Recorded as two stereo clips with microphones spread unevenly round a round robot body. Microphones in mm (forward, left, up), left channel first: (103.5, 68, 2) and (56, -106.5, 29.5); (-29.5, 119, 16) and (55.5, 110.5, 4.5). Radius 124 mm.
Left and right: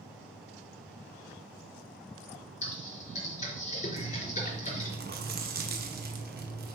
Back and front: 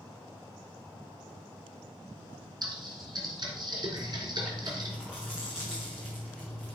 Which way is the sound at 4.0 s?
80° right.